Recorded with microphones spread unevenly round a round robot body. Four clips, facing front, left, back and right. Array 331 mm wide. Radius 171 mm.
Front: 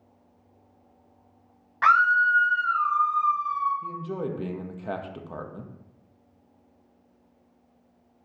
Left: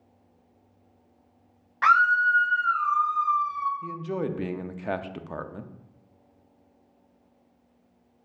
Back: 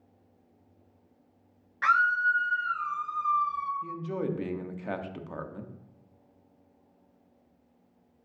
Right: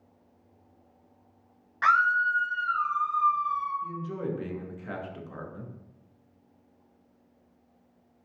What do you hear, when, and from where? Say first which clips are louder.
1.8 s a scream: left 3 dB, front 5 dB; 15° left, 1.0 m; by 3.7 s 175° left, 0.9 m
3.8 s a man speaking: left 3 dB, front 1 dB; 50° left, 0.7 m